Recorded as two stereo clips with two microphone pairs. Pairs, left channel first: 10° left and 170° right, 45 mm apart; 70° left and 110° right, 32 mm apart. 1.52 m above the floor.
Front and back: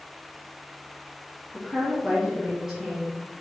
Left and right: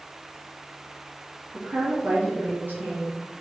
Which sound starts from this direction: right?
A woman speaking, at 1.5 s.